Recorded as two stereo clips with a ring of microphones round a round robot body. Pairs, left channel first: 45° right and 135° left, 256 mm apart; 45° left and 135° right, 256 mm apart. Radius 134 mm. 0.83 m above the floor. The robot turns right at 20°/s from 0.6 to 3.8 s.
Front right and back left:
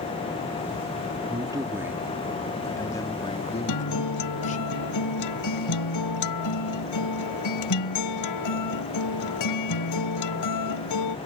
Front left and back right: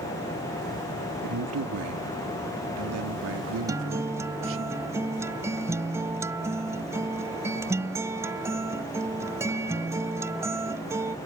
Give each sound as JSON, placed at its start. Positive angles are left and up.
{"t": 1.2, "sound": "a man speaking", "azimuth_deg": -155}
{"t": 3.7, "sound": "a guitar", "azimuth_deg": -55}